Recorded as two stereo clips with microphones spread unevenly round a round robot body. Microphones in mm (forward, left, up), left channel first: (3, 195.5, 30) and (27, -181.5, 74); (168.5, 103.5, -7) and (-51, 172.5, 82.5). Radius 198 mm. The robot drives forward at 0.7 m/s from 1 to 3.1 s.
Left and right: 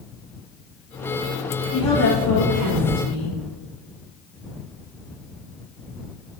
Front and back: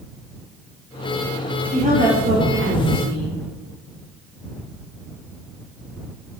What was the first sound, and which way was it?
A woman speaking, 90° left.